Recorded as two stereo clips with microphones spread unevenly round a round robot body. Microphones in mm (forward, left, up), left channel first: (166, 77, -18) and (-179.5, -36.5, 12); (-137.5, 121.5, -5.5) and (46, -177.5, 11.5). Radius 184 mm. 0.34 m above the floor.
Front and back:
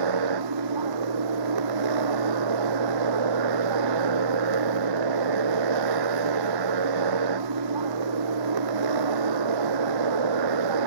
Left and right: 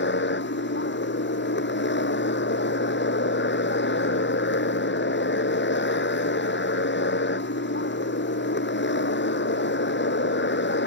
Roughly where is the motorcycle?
Behind.